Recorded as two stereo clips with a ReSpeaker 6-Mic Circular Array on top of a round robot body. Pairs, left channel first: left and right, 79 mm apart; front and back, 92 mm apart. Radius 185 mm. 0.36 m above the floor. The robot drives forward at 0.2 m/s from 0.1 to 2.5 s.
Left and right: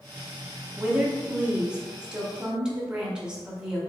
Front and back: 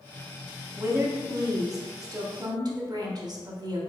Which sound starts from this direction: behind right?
A woman speaking, at 0.8 s.